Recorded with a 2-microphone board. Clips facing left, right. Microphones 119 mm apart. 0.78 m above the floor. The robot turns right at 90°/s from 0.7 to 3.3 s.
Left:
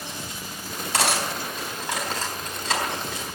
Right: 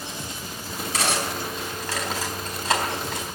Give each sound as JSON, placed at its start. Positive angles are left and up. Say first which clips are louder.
{"t": 0.9, "sound": "cutlery clinking", "louder": "left 1 dB", "side_deg": 75, "distance_m": 4.0}